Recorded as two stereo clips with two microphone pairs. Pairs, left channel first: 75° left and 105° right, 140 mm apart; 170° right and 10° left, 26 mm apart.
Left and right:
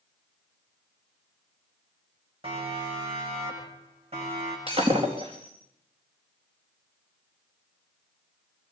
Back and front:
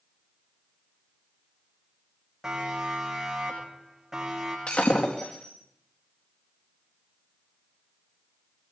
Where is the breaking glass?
150° right, 4 m.